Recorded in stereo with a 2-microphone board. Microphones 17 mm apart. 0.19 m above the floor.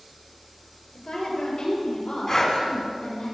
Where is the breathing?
30° left (ahead or behind), 1.8 m.